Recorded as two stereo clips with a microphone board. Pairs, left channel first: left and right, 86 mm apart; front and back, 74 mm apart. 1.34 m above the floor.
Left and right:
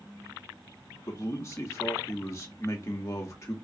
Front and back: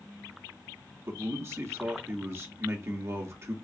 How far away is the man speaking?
About 0.8 m.